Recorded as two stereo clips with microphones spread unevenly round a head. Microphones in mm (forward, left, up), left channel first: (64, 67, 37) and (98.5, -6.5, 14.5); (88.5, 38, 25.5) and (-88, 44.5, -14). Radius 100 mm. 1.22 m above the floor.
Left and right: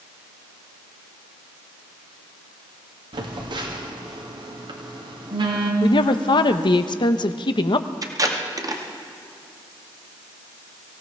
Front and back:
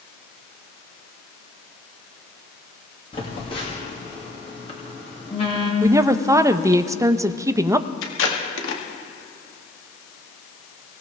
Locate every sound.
3.1 s a phone buzzing: 70° right, 2.5 m
5.8 s a woman speaking: 105° left, 0.8 m
8.0 s tape being pulled: 25° right, 2 m